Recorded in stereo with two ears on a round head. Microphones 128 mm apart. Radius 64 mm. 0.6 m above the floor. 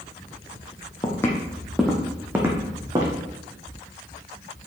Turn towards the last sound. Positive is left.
turn(degrees=-30)  # may be behind; listen again after turning